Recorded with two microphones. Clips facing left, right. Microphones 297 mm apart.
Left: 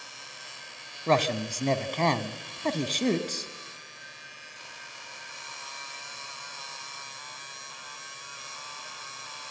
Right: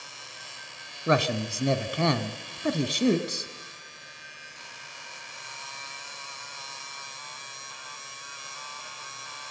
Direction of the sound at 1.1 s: 10° right (ahead or behind).